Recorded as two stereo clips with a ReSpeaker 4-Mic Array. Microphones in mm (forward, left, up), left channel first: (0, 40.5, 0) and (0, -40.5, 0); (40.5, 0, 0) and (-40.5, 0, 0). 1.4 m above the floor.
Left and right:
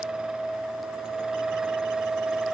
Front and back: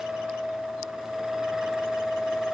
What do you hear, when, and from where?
Only background noise.